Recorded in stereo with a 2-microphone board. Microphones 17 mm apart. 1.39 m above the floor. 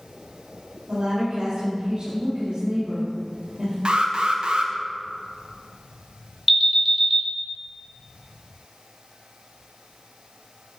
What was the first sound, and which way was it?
A woman speaking, 80° right.